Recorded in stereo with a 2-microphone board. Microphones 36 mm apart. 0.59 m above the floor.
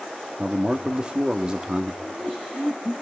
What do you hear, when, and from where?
0.4 s a man speaking: 25° right (ahead or behind), 1.0 m
2.0 s laughter: 60° right (ahead or behind), 6.5 m